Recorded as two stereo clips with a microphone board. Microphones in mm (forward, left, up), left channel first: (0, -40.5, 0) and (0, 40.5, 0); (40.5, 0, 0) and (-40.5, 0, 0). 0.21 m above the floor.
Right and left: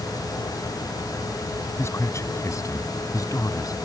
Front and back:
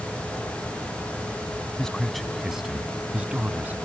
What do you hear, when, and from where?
1.8 s a man speaking: 75° right; by 3.8 s 120° right